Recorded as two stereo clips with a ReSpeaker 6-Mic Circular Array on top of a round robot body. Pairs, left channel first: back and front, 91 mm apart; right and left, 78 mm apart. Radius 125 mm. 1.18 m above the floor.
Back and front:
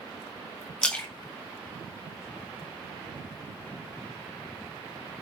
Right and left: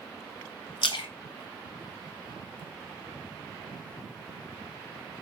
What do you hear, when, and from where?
0.8 s a splash: 105° right, 1.5 m